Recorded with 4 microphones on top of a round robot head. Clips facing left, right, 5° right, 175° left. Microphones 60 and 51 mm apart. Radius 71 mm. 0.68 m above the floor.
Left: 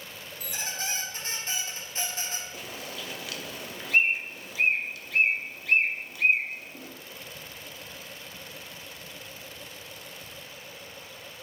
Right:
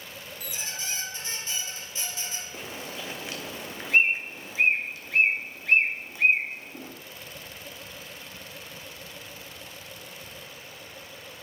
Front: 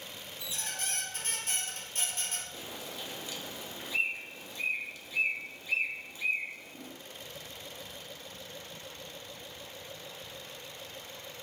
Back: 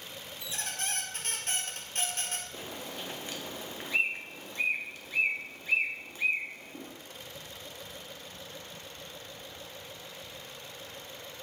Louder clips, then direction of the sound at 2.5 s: Right 1 dB, back 2 dB; 150° right.